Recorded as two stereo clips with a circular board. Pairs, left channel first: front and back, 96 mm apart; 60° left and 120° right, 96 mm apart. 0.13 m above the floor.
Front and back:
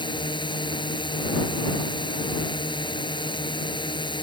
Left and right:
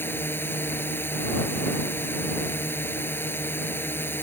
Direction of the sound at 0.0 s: Straight ahead.